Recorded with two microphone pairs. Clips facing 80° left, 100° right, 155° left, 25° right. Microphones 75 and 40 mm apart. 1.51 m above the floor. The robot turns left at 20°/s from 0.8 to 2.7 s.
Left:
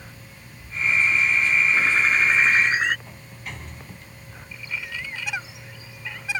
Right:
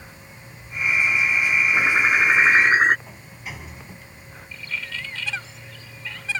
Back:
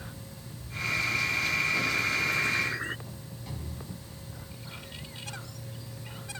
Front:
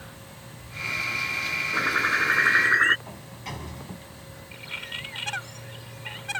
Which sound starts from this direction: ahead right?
A bird, at 1.7 s.